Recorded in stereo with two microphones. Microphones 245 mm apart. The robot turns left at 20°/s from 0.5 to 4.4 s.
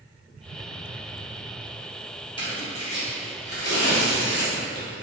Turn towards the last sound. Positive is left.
turn(degrees=60)  # may be behind; listen again after turning